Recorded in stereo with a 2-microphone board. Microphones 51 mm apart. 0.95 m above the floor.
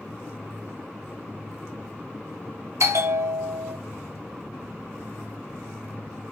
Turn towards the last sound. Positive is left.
turn(degrees=-75)  # may be behind; listen again after turning